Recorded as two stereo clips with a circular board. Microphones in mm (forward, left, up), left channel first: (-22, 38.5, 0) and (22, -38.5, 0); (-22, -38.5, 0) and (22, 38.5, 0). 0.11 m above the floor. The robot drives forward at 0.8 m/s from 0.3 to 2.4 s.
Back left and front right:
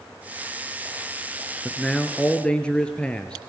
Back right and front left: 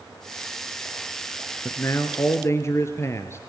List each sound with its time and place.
1.6 s a man speaking: 150° right, 1.3 m; by 3.4 s 165° right, 1.6 m